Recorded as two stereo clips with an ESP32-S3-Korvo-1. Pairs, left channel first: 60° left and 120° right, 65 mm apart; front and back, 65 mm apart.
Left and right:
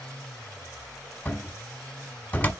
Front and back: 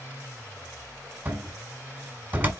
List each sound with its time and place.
1.2 s a cupboard door: 120° left, 0.9 m